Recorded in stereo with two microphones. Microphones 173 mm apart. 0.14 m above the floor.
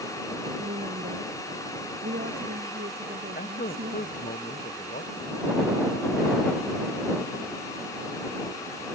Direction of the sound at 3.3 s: 55° left (ahead or behind).